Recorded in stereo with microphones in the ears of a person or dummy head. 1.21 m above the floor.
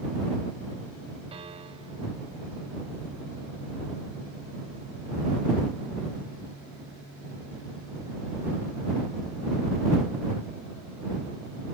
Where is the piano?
35° right (ahead or behind).